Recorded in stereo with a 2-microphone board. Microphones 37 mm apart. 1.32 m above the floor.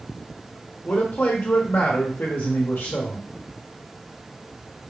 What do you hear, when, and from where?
0.8 s a man speaking: 60° left (ahead or behind), 0.9 m